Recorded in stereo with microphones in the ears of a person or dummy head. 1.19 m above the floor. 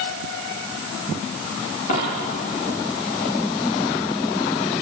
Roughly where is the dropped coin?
Left.